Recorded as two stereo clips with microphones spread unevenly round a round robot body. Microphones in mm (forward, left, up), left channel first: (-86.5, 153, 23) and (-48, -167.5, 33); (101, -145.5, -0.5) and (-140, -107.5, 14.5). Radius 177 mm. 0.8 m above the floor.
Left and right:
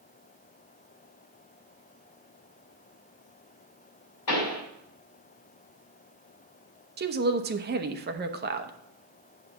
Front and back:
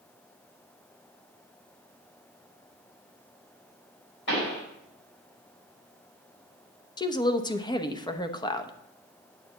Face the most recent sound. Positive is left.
turn(degrees=-55)